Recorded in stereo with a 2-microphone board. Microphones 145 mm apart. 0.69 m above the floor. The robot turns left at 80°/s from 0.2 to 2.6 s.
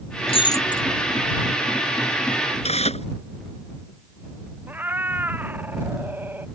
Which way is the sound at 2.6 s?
50° left (ahead or behind).